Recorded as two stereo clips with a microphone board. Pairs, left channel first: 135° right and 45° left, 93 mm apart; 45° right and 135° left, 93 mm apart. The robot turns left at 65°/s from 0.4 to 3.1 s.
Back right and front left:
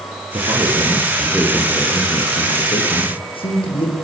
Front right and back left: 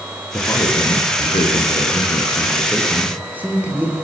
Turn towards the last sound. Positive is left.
turn(degrees=-150)